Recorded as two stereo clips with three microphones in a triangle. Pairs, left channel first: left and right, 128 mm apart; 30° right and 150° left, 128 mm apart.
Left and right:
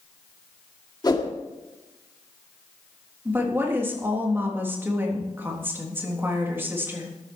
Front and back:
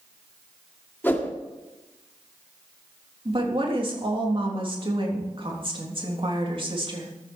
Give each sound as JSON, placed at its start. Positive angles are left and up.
{"t": 1.0, "sound": "a whoosh", "azimuth_deg": 40, "distance_m": 1.7}
{"t": 3.2, "sound": "a woman speaking", "azimuth_deg": -165, "distance_m": 3.5}